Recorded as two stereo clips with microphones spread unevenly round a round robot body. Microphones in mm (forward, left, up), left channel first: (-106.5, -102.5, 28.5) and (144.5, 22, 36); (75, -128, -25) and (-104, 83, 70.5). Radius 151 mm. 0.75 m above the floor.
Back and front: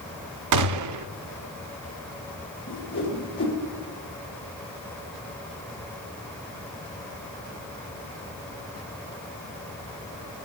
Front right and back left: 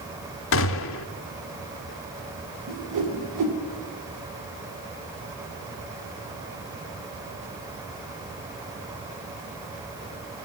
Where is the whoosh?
155° left, 2.0 m.